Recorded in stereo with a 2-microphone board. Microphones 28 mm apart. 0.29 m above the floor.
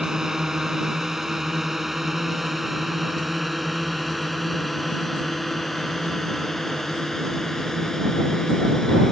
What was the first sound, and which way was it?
A drone, 20° right (ahead or behind).